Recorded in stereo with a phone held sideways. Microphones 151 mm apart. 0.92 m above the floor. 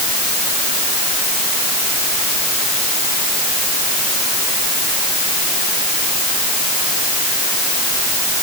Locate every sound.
Only background noise.